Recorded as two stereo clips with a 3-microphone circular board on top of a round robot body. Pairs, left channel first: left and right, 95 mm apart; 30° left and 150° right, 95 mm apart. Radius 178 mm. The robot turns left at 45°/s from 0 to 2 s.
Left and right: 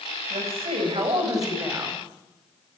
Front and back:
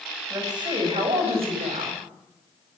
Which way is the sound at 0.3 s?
95° right.